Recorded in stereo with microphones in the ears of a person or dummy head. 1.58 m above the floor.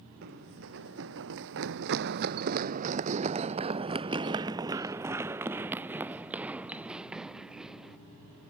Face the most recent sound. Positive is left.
turn(degrees=-5)  # may be behind; listen again after turning